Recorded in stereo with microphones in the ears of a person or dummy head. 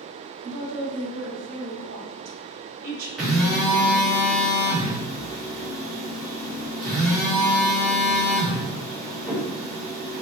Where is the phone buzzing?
Centre (ahead or behind), 1.4 m.